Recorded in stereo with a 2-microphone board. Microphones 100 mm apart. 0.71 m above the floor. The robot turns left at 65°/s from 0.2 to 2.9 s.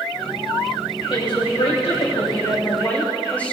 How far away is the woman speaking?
About 3 m.